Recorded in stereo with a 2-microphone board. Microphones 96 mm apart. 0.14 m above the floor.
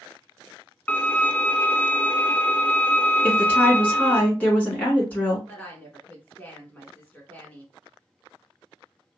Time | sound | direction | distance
0.9 | a violin | 20° left (ahead or behind) | 0.6 m
3.2 | a woman speaking | 15° left (ahead or behind) | 1.6 m
5.5 | a woman speaking | 15° left (ahead or behind) | 1.2 m